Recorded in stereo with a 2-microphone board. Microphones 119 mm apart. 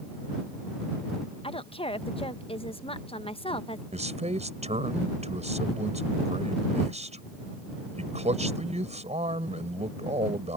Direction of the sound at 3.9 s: 85° right.